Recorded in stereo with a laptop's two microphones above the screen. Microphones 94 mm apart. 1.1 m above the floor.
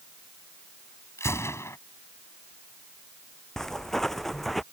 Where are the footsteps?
5° left (ahead or behind); by 4.6 s centre (ahead or behind).